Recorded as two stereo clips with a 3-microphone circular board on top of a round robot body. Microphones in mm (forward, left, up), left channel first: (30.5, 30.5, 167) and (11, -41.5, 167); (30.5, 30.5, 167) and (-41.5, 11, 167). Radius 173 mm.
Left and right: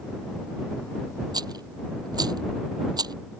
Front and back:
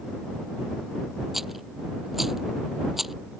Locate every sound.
1.3 s a rattle: 80° right